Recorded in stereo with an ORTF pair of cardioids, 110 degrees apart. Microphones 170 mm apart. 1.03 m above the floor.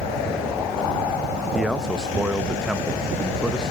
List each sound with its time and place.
1.5 s a man speaking: 5° right, 0.8 m